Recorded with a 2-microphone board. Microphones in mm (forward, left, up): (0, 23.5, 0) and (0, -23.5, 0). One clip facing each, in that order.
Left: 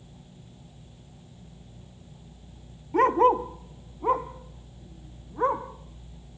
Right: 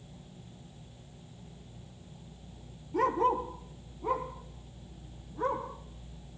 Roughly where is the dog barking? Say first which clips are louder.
Left 7 dB; left.